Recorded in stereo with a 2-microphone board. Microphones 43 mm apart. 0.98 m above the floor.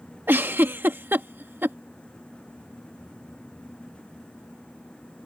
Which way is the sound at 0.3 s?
55° right (ahead or behind).